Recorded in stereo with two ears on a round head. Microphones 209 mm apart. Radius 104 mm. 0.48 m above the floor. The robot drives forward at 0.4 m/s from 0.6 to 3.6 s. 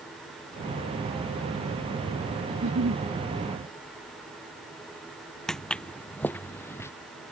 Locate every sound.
2.5 s a giggle: 60° right (ahead or behind)
5.5 s footsteps: centre (ahead or behind); by 6.9 s 10° left (ahead or behind)